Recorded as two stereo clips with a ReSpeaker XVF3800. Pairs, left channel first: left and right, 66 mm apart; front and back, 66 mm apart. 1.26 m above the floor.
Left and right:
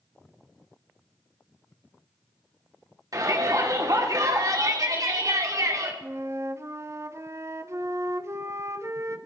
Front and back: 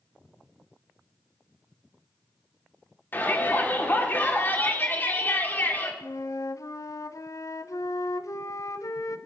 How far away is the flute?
About 0.6 m.